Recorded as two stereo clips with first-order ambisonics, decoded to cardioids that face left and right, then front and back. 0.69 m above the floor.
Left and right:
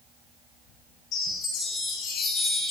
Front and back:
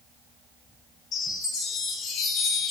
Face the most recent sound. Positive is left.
turn(degrees=50)